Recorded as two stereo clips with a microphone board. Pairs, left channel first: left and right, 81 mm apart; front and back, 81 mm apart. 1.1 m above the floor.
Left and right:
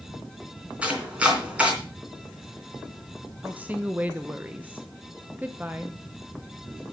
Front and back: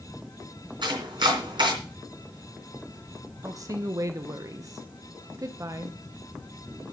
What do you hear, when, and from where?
0.8 s chopping: 165° right, 3 m
3.4 s a woman speaking: 155° right, 0.8 m